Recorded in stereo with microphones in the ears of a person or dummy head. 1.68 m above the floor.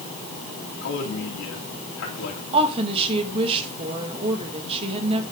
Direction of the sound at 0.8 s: 65° left (ahead or behind).